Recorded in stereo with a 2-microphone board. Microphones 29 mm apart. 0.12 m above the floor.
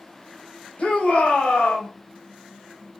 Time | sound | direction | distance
0.8 | a shout | 60° left (ahead or behind) | 2.5 m